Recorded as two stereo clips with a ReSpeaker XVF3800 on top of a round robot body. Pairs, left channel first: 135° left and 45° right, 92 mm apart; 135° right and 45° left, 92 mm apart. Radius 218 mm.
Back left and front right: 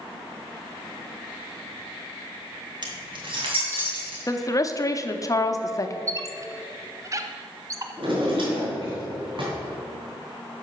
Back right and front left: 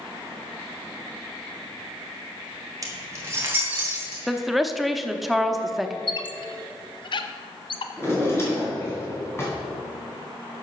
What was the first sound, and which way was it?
Keys jangling, 10° right.